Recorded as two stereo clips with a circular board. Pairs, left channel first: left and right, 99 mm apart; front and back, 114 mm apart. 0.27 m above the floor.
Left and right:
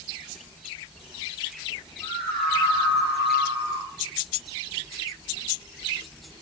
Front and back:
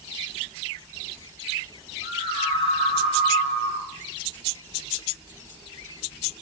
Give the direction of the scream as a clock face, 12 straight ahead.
11 o'clock.